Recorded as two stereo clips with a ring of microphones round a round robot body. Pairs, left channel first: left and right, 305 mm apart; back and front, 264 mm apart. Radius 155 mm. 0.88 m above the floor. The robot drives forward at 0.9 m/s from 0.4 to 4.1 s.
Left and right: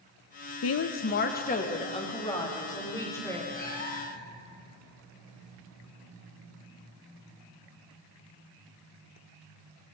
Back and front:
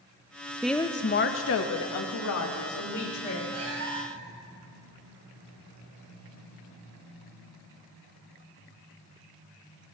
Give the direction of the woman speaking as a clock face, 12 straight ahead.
9 o'clock.